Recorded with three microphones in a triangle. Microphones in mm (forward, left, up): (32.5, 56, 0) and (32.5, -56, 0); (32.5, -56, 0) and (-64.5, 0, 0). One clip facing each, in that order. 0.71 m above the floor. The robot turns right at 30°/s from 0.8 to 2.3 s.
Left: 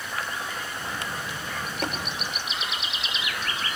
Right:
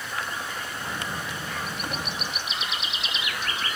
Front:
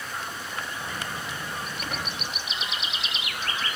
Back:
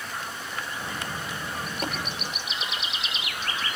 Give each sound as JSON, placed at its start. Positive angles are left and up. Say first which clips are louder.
{"t": 1.8, "sound": "tapping", "louder": "left 6 dB, back 6 dB", "azimuth_deg": 95, "distance_m": 6.5}